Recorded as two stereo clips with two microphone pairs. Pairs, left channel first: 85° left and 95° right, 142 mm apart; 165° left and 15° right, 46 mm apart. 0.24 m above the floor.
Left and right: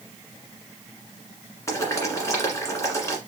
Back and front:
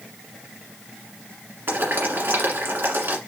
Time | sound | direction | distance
1.7 | boiling | 20° left | 1.6 m